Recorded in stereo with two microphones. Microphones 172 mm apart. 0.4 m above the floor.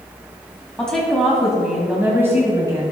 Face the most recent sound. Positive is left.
turn(degrees=-20)  # may be behind; listen again after turning